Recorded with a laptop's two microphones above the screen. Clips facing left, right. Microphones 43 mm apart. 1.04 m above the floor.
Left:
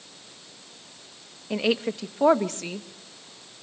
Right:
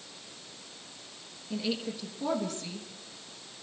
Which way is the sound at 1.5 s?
65° left (ahead or behind).